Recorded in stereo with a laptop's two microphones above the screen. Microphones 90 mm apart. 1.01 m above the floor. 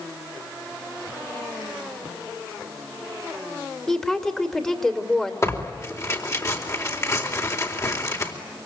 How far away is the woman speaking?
About 3 m.